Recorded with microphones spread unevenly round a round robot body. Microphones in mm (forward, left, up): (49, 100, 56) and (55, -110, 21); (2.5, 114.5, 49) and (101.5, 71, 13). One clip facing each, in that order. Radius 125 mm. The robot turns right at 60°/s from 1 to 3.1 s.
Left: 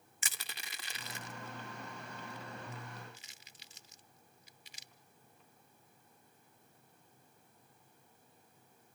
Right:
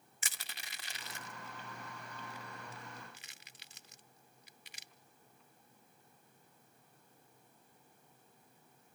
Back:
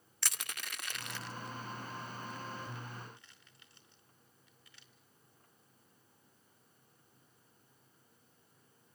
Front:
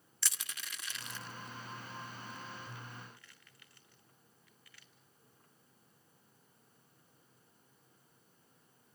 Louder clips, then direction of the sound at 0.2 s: Left 2 dB, back 2 dB; 110° left.